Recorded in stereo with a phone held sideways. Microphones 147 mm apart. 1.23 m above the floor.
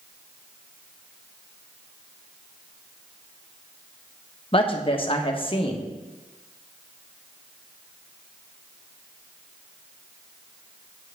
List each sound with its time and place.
4.5 s a woman speaking: 40° left (ahead or behind), 1.3 m